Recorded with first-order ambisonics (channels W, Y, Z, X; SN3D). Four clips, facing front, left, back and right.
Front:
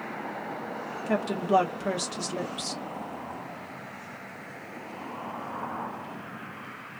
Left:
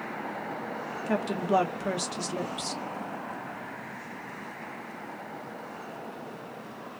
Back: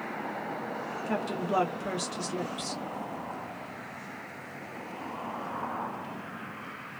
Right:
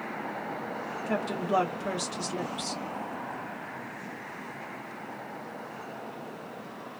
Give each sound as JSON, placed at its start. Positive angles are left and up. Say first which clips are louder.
{"t": 1.1, "sound": "a woman speaking", "louder": "left 2 dB, front 6 dB", "azimuth_deg": 45, "distance_m": 0.8}